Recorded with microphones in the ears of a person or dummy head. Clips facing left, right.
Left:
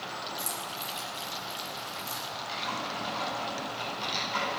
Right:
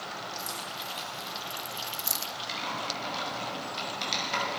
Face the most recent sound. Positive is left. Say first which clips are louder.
# even
turn(degrees=-60)  # may be behind; listen again after turning